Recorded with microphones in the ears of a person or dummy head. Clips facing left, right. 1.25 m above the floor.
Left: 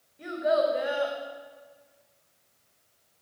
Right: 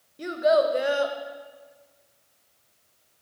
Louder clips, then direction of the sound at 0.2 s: Right 4 dB; 50° right (ahead or behind).